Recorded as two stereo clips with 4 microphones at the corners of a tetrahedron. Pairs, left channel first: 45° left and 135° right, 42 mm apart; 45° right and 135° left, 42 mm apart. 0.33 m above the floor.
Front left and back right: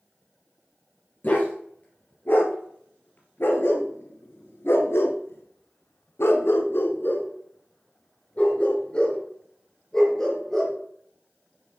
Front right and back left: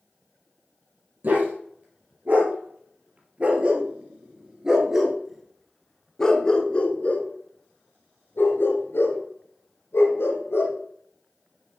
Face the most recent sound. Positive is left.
turn(degrees=-35)